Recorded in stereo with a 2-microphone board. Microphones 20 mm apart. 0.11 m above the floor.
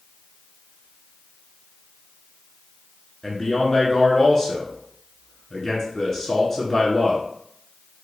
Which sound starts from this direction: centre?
A man speaking, at 3.2 s.